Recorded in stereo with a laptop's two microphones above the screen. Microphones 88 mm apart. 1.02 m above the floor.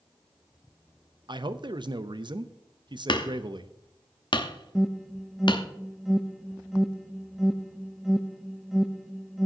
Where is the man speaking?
55° right (ahead or behind), 0.7 m.